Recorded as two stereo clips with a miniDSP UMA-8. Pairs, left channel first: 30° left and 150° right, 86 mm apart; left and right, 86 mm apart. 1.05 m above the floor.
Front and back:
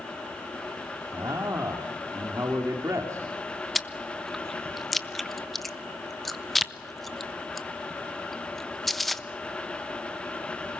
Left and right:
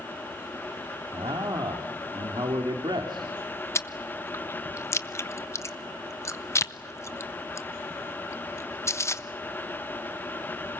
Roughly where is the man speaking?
Right.